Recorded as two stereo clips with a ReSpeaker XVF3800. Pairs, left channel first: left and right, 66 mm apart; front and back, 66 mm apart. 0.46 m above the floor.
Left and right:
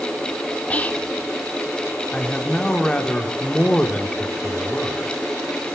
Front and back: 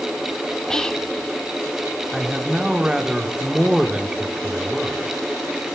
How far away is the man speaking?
About 0.7 m.